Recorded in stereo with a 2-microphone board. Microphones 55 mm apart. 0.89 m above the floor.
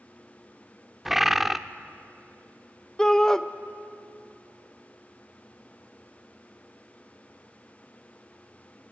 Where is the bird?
5° right (ahead or behind), 0.5 m.